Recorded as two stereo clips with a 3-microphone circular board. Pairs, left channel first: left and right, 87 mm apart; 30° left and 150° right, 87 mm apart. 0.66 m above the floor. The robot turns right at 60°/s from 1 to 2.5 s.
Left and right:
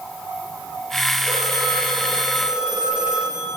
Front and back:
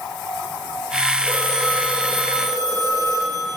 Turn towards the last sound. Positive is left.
turn(degrees=-10)